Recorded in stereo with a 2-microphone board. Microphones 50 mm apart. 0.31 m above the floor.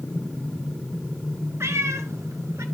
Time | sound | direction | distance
1.6 | a cat meowing | 65° right (ahead or behind) | 1.5 m